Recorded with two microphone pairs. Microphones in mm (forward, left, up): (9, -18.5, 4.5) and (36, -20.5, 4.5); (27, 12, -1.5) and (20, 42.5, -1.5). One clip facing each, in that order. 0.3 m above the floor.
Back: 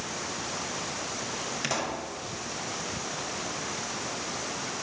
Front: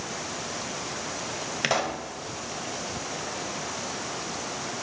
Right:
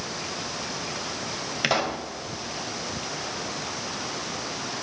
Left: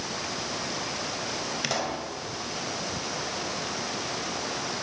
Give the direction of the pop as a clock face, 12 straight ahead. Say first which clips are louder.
Front 6 dB, right 7 dB; 1 o'clock.